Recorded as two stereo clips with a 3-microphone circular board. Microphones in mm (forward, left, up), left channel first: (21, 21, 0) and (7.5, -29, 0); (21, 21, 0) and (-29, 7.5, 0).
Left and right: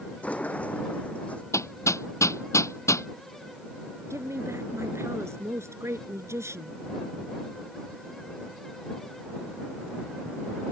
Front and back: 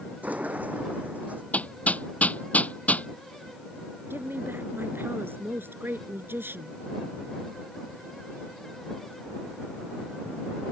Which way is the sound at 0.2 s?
140° left.